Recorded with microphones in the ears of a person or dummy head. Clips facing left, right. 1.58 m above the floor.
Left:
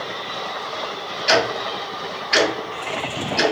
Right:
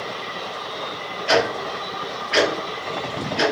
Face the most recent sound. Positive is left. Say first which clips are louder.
# even
turn(degrees=60)  # may be behind; listen again after turning